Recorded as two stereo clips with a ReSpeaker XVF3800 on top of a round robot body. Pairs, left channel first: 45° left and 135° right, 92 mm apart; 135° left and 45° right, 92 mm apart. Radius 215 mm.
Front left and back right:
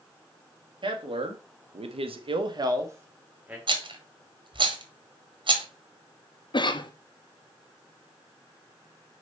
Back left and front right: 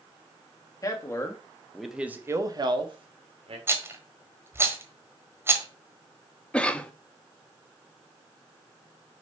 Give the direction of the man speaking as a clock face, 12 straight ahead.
6 o'clock.